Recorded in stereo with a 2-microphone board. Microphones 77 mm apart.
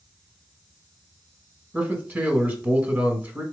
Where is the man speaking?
25° right (ahead or behind), 1.4 m.